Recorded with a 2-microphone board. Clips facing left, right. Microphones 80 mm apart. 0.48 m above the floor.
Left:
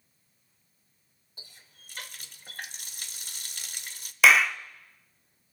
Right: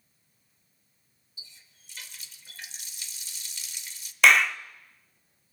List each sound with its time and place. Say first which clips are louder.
1.4 s a running tap: left 1 dB; 50° left (ahead or behind), 1.1 m
4.2 s a clap: even; 5° left (ahead or behind), 0.7 m